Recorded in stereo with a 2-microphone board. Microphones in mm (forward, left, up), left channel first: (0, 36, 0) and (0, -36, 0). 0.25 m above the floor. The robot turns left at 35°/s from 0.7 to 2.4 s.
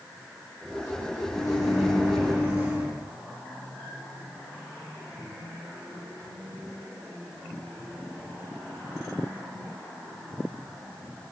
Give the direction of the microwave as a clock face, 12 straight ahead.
12 o'clock.